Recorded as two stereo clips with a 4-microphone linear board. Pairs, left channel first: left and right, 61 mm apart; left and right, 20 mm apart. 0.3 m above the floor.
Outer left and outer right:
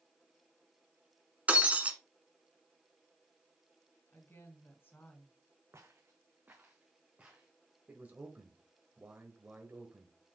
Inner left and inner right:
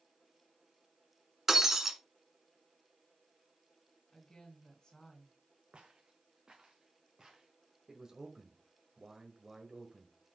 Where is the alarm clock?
No alarm clock in this recording.